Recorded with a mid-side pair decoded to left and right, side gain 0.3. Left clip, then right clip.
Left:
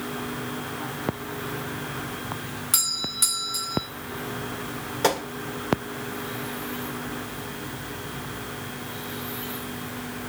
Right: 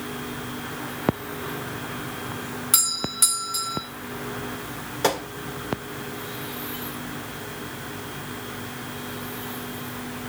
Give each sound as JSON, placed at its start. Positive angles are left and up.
{"t": 2.7, "sound": "a doorbell", "azimuth_deg": -20, "distance_m": 1.6}
{"t": 5.0, "sound": "a gunshot", "azimuth_deg": 0, "distance_m": 2.5}